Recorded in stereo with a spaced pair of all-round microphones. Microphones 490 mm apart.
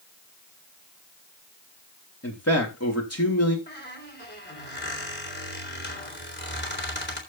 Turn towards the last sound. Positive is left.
turn(degrees=20)  # may be behind; listen again after turning